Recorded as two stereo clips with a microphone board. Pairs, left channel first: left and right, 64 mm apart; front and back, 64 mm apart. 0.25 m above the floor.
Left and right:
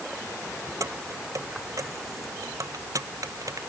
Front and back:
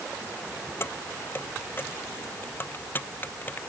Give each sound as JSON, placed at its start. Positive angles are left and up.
{"t": 0.8, "sound": "keys jangling", "azimuth_deg": -55}